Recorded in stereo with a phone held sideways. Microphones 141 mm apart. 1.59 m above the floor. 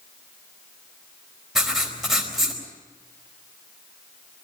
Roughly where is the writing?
Centre.